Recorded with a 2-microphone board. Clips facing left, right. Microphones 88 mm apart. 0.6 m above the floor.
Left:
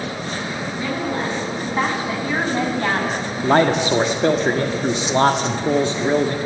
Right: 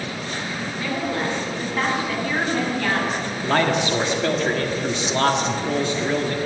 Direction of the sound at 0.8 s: 20° left (ahead or behind).